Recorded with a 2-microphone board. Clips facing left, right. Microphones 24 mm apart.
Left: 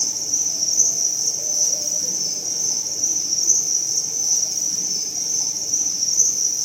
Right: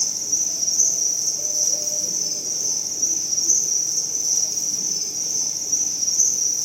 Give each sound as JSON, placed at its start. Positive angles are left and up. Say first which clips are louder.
{"t": 0.0, "sound": "an insect", "louder": "left 1 dB", "side_deg": 80, "distance_m": 3.5}